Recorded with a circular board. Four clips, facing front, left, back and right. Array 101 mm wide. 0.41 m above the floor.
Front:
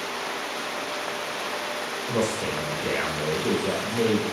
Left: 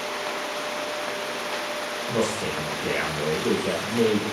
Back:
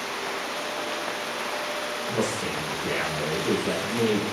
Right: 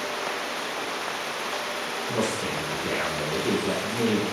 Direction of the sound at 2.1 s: 30° left.